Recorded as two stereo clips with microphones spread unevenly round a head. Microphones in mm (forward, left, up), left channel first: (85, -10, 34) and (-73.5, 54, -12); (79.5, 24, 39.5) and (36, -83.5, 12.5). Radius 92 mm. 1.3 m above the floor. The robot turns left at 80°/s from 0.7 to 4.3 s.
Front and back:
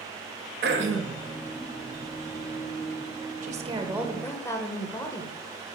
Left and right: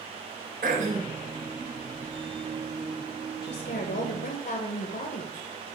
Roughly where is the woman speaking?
Behind left.